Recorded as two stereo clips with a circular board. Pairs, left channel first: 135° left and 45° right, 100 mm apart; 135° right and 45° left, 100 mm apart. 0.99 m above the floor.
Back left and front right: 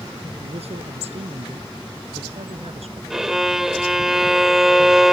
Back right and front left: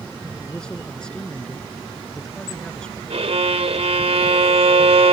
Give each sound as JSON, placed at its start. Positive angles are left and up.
{"t": 0.4, "sound": "a man speaking", "azimuth_deg": -55}
{"t": 3.1, "sound": "a violin", "azimuth_deg": 40}